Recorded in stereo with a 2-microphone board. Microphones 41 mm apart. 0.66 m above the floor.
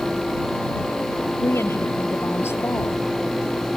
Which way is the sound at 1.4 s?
85° left.